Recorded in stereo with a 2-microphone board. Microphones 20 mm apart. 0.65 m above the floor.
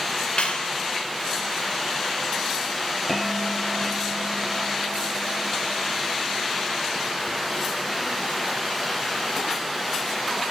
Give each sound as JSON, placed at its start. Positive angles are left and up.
{"t": 0.4, "sound": "a clap", "side_deg": 70, "distance_m": 2.5}
{"t": 3.1, "sound": "a bell", "side_deg": 5, "distance_m": 6.0}